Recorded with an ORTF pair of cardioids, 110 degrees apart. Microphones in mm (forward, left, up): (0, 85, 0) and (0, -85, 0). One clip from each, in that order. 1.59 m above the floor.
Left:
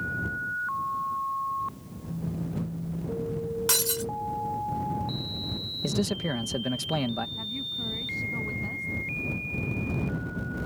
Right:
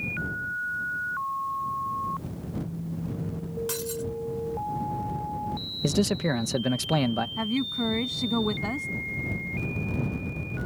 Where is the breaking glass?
50° left.